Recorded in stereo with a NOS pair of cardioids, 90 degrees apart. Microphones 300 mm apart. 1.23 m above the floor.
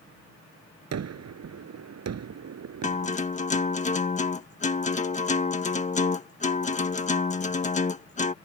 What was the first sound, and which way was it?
A gunshot, 55° right.